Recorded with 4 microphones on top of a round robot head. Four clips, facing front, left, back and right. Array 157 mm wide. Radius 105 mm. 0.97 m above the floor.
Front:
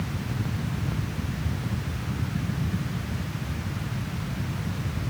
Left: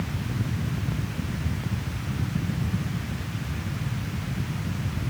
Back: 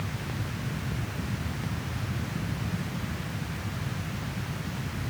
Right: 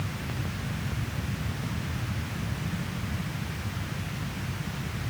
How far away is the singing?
I don't hear singing.